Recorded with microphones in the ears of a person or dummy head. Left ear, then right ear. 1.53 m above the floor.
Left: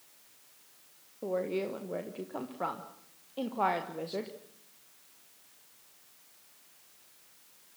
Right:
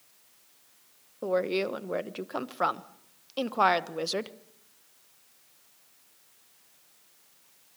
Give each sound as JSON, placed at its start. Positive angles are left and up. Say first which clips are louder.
{"t": 1.2, "sound": "a woman speaking", "louder": "right 5 dB", "side_deg": -80, "distance_m": 1.4}